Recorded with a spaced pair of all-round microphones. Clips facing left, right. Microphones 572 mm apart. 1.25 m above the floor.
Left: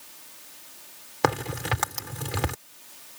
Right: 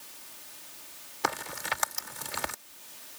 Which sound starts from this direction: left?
A crack, at 1.2 s.